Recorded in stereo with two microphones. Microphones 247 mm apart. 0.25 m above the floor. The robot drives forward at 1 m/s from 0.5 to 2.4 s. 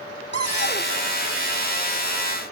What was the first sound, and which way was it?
A cupboard door, 45° left (ahead or behind).